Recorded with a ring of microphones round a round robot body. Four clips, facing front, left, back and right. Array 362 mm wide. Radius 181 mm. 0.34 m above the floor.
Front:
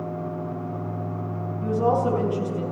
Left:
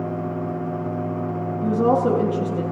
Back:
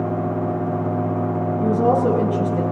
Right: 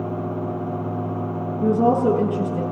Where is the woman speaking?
105° right, 9.5 m.